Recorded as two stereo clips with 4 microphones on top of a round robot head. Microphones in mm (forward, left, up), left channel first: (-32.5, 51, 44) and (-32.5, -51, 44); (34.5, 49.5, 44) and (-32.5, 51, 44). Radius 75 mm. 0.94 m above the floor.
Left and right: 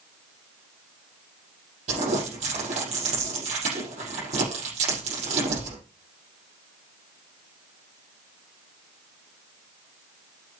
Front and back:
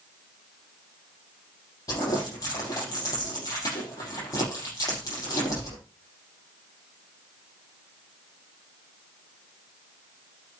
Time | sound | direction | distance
1.9 | crumpling | 55° right | 5.5 m